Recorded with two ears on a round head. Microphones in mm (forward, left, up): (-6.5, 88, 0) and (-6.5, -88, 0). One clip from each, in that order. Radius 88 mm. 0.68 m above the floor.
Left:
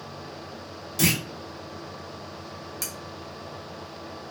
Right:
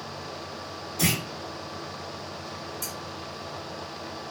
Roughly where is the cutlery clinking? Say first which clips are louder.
Left 3 dB; left.